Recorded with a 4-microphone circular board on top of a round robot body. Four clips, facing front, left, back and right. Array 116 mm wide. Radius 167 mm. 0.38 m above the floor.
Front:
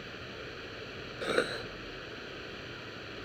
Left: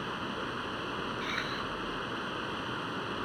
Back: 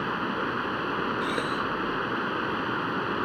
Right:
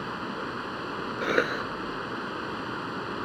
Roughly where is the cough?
Right.